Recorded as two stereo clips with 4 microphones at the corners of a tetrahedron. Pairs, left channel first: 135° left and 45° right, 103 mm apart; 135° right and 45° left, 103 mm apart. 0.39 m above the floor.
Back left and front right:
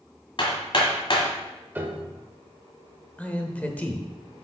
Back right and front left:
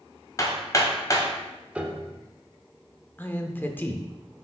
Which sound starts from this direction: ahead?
A piano, at 1.8 s.